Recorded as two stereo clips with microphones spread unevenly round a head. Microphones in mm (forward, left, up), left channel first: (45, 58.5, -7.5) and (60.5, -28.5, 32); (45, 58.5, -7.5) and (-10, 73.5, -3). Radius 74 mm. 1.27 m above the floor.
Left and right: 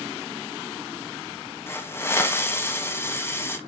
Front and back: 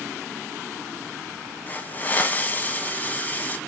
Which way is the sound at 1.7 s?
45° left.